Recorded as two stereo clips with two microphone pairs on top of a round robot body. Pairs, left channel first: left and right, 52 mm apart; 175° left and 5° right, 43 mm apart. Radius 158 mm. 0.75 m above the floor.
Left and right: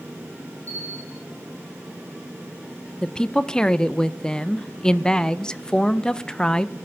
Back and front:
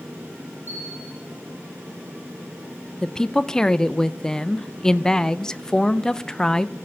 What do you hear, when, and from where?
0.7 s a bell: 35° left, 3 m
3.0 s a woman speaking: 145° left, 0.6 m